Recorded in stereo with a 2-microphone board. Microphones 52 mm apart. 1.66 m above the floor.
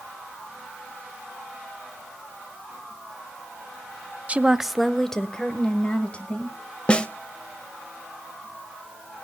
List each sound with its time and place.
4.3 s a woman speaking: 25° right (ahead or behind), 0.6 m; by 6.6 s 30° left (ahead or behind), 2 m
6.9 s a snare drum: 25° left (ahead or behind), 0.8 m